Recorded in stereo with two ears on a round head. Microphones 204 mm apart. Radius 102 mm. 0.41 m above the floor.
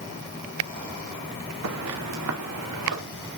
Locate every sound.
1.6 s footsteps: 80° right, 1.9 m